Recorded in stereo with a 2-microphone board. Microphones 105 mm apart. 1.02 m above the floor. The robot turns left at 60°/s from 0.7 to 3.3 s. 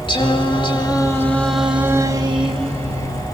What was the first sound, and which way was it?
Singing, 50° left.